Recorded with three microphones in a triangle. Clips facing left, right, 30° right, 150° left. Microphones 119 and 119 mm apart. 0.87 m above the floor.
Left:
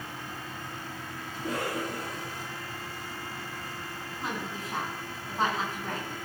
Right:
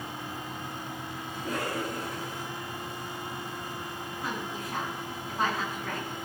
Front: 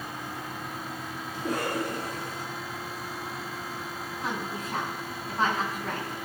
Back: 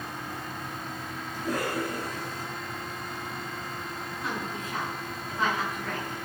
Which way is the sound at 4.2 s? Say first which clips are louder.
Even, front 1 dB; 25° left.